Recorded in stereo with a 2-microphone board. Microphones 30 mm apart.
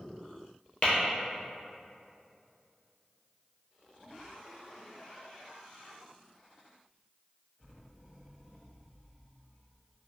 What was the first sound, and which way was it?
Tapping, 30° left (ahead or behind).